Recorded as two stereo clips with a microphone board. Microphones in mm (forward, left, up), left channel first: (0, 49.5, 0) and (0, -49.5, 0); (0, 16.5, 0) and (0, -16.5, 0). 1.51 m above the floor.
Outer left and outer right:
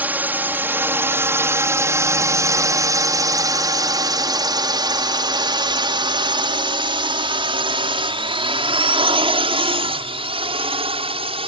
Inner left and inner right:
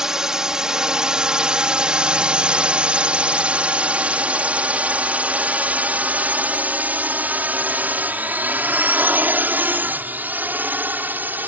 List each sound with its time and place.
0.0 s a drone: 15° right (ahead or behind); by 11.5 s 75° right (ahead or behind)